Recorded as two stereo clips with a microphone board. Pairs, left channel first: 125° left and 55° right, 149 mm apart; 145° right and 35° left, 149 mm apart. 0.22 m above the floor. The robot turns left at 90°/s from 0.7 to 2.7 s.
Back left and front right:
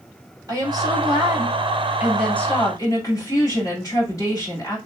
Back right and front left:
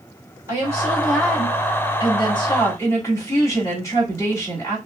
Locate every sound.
0.5 s a woman speaking: 15° right, 1.7 m; by 4.8 s 165° left, 1.7 m